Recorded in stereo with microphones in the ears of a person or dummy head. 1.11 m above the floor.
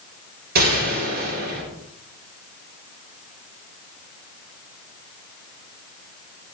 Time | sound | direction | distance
0.6 | a gunshot | 50° right (ahead or behind) | 5.5 m